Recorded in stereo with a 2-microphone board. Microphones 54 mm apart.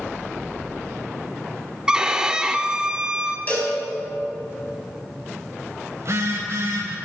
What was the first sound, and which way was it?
A violin, 15° right (ahead or behind).